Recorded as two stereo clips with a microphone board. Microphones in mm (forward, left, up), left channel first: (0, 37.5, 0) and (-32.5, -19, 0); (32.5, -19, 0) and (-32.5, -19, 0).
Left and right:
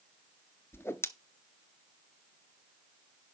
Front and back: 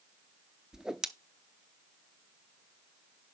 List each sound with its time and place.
0.7 s a whoosh: 100° left, 0.7 m